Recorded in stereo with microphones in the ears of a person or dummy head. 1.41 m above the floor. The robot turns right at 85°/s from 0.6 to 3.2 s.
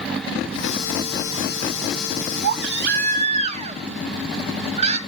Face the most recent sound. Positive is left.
turn(degrees=-40)